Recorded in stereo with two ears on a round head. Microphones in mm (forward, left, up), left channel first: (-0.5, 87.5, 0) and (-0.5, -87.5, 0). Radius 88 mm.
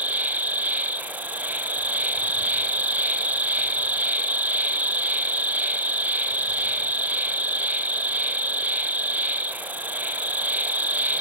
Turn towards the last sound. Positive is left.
turn(degrees=-10)  # may be behind; listen again after turning